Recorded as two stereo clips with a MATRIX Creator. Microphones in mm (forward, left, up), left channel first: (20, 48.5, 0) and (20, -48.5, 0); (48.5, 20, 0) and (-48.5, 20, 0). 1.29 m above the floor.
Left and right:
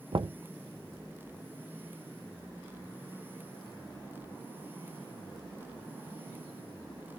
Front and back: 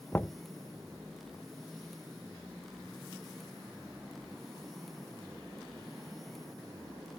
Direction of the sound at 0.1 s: 70° right.